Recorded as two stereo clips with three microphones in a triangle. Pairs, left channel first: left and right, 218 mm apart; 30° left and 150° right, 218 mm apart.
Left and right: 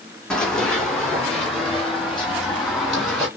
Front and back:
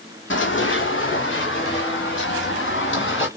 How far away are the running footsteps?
About 1.1 m.